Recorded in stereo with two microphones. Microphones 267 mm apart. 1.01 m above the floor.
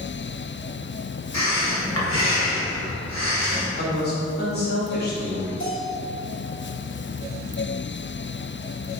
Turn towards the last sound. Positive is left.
turn(degrees=45)  # may be behind; listen again after turning